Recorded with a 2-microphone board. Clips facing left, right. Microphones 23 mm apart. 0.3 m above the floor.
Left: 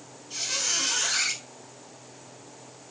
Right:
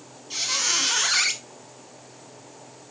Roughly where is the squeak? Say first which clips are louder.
Right 4 dB; right.